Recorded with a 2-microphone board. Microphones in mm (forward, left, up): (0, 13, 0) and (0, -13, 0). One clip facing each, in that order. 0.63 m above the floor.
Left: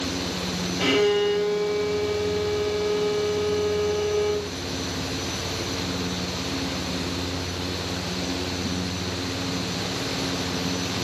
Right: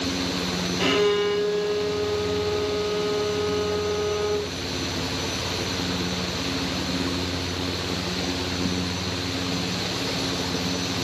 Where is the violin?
30° right (ahead or behind), 2.5 m.